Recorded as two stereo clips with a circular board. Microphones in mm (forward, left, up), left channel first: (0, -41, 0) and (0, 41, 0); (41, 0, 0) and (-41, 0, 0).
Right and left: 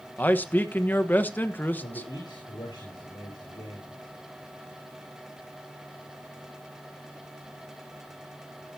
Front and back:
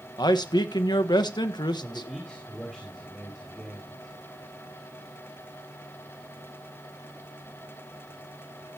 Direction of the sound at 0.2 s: 25° right.